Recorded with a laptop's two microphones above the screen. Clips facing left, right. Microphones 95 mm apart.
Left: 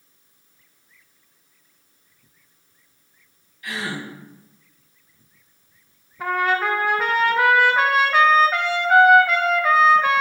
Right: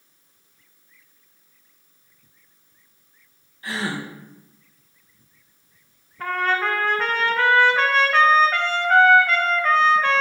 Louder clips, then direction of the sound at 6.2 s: Left 2 dB; 10° left (ahead or behind).